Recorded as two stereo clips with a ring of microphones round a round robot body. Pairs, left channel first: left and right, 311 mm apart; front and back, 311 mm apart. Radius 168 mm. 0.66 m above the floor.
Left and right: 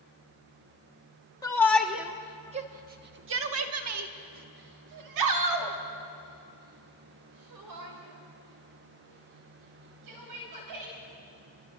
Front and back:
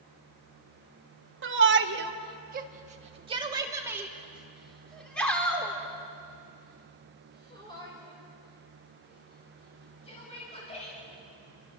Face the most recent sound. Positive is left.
turn(degrees=-75)